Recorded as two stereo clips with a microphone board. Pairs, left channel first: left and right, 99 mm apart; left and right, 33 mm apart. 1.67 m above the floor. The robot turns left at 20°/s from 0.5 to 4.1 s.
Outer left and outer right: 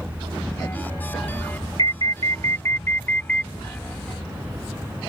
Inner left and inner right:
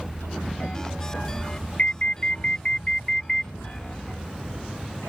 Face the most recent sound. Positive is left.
turn(degrees=0)